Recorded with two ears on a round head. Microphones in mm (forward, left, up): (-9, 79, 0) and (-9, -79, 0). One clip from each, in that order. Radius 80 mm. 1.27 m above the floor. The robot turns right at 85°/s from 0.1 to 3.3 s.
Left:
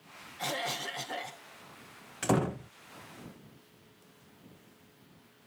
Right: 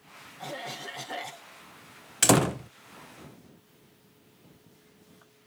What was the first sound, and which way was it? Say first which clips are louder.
A cough: left 4 dB; 120° left.